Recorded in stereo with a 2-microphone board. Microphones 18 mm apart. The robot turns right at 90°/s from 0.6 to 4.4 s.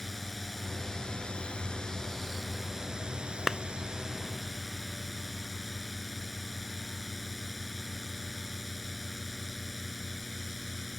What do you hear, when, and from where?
0.0 s a drone: 10° left; by 11.0 s 5° right
3.5 s a clap: 5° right (ahead or behind); by 3.6 s 15° right (ahead or behind)